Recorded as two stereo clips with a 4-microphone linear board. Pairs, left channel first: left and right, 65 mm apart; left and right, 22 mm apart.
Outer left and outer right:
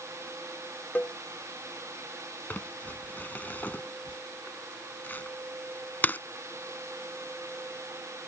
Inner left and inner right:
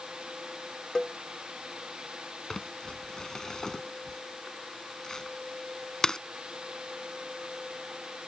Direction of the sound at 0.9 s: 30° left (ahead or behind).